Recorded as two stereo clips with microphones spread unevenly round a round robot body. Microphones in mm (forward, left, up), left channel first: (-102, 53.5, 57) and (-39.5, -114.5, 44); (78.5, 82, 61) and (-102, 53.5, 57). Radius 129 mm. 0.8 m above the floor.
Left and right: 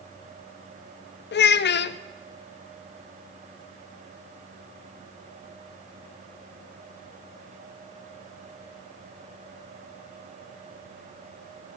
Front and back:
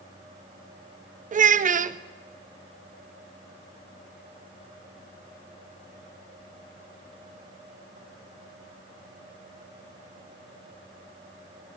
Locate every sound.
1.3 s a child speaking: 140° left, 0.5 m